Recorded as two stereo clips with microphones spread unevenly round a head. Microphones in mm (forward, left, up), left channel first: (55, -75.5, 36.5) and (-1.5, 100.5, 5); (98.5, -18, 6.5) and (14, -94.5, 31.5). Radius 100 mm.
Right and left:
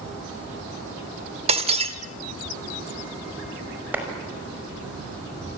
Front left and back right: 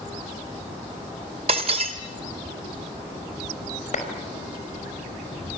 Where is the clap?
25° left, 5 m.